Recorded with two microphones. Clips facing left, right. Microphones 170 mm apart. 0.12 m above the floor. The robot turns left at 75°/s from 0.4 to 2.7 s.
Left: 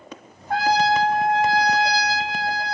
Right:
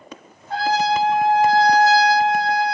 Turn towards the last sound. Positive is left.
turn(degrees=-105)